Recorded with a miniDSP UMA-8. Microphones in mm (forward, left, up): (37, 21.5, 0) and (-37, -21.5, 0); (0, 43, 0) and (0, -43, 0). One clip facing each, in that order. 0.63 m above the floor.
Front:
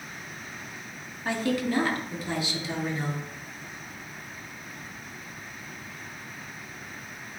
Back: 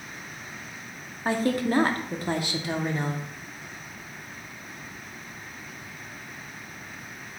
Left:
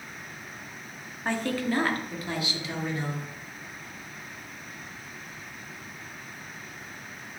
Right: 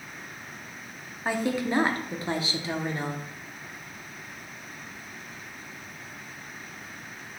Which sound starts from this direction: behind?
A woman speaking, at 1.2 s.